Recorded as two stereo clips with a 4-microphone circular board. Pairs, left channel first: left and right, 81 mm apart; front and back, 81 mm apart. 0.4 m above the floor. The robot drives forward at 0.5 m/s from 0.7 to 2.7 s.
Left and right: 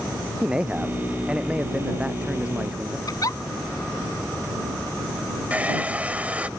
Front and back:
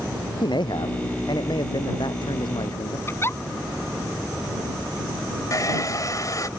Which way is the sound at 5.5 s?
25° right.